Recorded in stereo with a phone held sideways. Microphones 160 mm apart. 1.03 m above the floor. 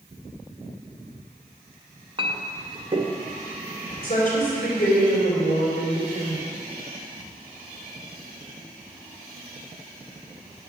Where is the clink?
35° right (ahead or behind), 0.6 m.